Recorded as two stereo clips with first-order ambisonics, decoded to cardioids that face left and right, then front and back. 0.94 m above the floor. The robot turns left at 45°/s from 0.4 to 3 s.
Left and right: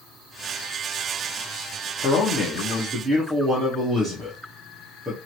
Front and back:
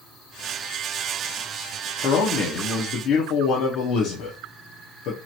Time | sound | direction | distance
2.0 | a man speaking | 40° left | 0.9 m